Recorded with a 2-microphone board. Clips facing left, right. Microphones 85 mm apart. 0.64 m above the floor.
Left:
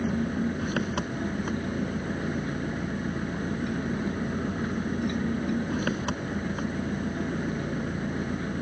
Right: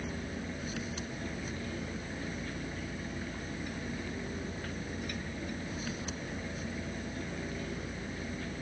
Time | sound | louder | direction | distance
0.0 | an engine running | left 12 dB | 65° left (ahead or behind) | ?